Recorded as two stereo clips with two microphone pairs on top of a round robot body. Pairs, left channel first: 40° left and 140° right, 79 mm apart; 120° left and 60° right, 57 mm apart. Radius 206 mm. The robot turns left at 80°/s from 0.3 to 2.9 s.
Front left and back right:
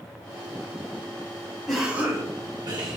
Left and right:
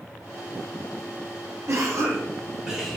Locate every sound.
1.7 s a cough: 50° right, 3.5 m; by 3.0 s 145° right, 3.5 m